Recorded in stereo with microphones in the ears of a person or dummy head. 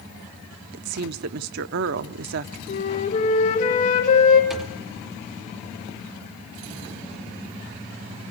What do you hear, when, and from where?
0.7 s a woman speaking: 70° right (ahead or behind), 0.7 m
2.7 s a flute: 40° left (ahead or behind), 2.5 m
4.5 s a thud: centre (ahead or behind), 1.3 m